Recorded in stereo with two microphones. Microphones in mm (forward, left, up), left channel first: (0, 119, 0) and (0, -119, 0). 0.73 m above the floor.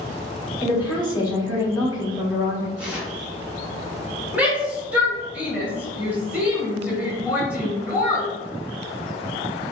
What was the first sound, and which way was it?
A woman speaking, 15° left (ahead or behind).